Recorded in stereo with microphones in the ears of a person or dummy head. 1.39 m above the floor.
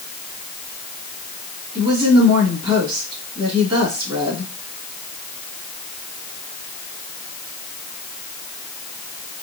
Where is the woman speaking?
25° right (ahead or behind), 2.5 m.